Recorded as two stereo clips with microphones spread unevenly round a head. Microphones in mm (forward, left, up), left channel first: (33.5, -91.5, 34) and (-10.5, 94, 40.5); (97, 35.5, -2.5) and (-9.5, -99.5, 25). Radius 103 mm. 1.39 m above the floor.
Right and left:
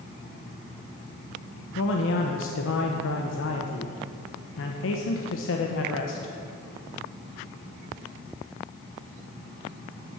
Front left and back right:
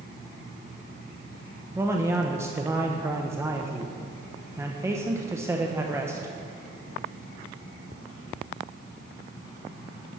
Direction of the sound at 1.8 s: 55° right.